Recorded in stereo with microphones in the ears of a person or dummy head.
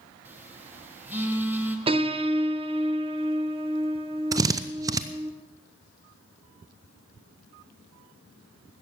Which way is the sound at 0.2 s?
15° right (ahead or behind).